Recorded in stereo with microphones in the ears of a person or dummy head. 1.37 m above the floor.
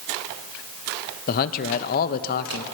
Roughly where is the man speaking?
Left.